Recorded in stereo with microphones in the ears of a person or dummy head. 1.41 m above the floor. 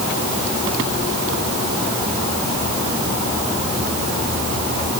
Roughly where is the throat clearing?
No throat clearing in this recording.